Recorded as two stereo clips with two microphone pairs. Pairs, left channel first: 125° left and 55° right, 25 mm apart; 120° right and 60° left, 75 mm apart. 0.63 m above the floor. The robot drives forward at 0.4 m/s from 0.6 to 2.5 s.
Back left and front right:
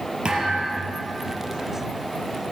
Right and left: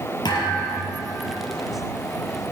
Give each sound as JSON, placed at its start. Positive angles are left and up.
{"t": 0.2, "sound": "a thud", "azimuth_deg": -105, "distance_m": 3.0}